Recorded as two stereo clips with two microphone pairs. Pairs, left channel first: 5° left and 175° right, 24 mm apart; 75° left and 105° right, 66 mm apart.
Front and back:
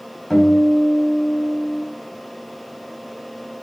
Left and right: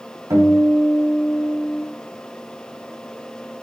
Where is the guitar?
85° right, 3.5 m.